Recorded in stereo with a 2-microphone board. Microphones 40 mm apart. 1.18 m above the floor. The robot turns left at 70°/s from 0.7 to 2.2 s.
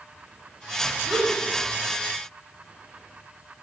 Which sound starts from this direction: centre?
A gasp, at 1.1 s.